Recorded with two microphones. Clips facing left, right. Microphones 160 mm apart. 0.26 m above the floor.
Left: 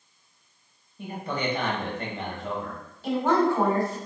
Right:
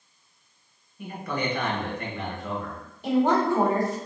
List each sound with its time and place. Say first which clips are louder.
1.0 s a man speaking: even; 30° left (ahead or behind), 1.0 m
3.0 s a woman speaking: right 1 dB; 20° right (ahead or behind), 1.9 m